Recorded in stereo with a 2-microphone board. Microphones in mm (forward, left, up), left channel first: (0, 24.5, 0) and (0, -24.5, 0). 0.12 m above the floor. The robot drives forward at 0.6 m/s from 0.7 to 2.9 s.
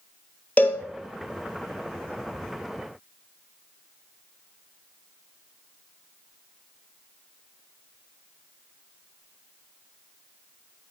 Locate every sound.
0.6 s a cowbell: 30° left (ahead or behind), 1.7 m; by 0.8 s 35° left (ahead or behind), 1.6 m